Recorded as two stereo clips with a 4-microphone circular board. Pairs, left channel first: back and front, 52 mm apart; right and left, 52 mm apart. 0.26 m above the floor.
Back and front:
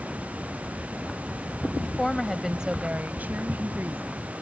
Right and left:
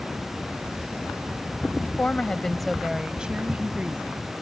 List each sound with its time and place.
1.8 s a woman speaking: 120° right; by 4.4 s 35° left